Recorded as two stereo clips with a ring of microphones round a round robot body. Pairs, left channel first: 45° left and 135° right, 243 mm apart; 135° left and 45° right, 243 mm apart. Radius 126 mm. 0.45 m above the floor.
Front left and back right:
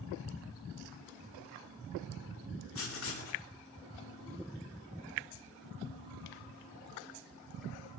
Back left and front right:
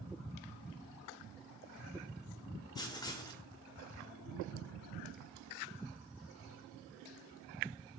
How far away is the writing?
About 0.9 m.